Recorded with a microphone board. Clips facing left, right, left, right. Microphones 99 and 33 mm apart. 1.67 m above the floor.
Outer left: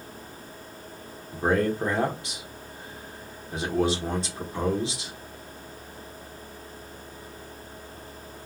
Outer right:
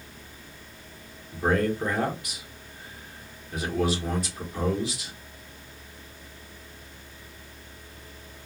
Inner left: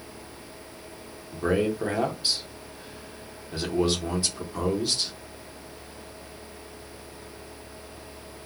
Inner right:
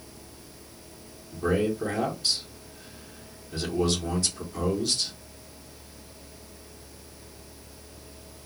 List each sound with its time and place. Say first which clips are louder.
1.3 s a man speaking: outer left 1 dB, inner left 1 dB; 30° left (ahead or behind), 1.3 m